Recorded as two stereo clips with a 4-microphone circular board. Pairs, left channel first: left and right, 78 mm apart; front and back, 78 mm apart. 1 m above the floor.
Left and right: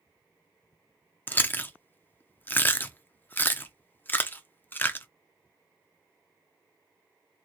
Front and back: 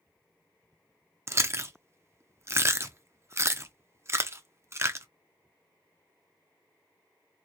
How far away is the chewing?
About 0.6 m.